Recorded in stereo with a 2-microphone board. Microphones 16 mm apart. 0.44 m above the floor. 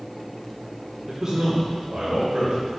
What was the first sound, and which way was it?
A man speaking, 35° right (ahead or behind).